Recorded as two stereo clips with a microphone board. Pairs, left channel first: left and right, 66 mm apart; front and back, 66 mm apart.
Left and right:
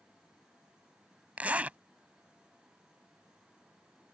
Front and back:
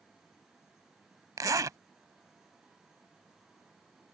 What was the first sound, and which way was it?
A zipper, 160° right.